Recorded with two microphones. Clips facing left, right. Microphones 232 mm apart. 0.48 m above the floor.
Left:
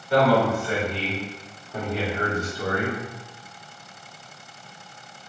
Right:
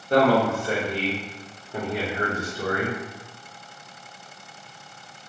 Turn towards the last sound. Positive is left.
turn(degrees=0)  # may be behind; listen again after turning